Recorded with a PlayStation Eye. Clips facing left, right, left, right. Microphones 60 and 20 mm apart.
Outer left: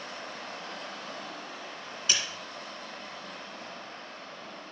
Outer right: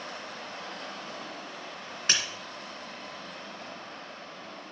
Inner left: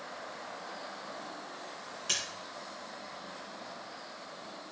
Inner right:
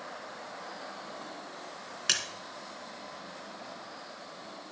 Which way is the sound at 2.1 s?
50° right (ahead or behind).